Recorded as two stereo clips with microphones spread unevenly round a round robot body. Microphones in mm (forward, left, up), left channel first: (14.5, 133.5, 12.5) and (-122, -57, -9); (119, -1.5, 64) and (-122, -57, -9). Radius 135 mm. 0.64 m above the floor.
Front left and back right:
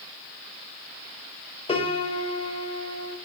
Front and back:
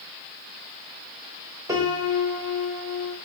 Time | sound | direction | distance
1.7 | a piano | 120° left | 3 m